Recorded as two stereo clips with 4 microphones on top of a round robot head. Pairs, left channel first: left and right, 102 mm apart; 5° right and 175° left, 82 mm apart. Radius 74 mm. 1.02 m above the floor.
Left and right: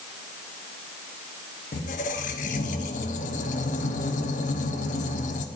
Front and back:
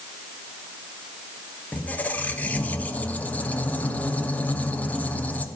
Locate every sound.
1.7 s a squeak: 70° left, 0.7 m